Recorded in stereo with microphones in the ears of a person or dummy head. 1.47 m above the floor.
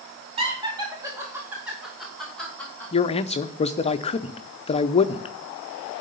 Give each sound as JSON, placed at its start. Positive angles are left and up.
{"t": 0.4, "sound": "laughter", "side_deg": -35, "distance_m": 2.0}
{"t": 2.9, "sound": "a man speaking", "side_deg": 30, "distance_m": 0.5}